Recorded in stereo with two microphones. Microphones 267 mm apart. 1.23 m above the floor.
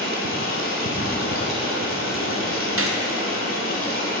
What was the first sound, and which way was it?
Running water, 50° left (ahead or behind).